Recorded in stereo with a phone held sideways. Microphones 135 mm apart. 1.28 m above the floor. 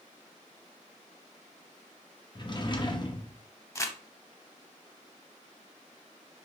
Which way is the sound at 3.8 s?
20° left (ahead or behind).